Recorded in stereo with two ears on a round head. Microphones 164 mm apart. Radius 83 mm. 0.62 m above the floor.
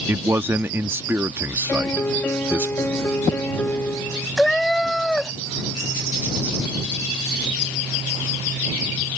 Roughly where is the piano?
Centre.